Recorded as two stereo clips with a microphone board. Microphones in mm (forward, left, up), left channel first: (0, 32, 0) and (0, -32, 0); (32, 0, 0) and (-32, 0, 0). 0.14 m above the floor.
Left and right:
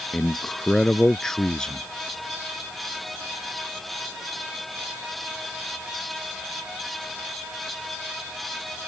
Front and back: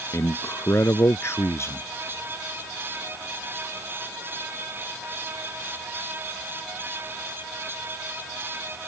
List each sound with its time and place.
0.1 s a man speaking: 15° left